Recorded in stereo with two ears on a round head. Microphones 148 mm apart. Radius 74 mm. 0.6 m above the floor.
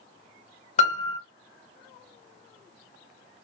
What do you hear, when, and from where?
0.8 s a piano: 40° left (ahead or behind), 1.5 m